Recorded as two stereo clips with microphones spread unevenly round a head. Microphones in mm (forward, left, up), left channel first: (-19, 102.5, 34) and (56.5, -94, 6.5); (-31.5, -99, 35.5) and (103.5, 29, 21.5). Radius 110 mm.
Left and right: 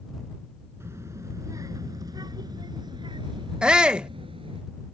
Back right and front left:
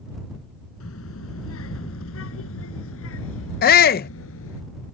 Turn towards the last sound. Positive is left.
turn(degrees=-145)